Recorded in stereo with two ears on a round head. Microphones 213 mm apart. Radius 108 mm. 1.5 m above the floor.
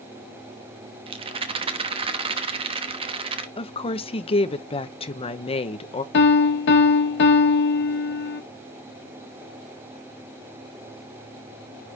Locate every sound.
1.1 s a rattle: 20° right (ahead or behind), 1.1 m
3.6 s a woman speaking: 25° left (ahead or behind), 1.0 m
6.1 s a piano: 50° left (ahead or behind), 1.4 m